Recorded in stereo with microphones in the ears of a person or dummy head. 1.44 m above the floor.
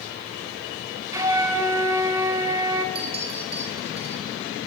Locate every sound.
1.1 s a flute: 20° right (ahead or behind), 2.5 m
3.0 s a clink: 30° right (ahead or behind), 5 m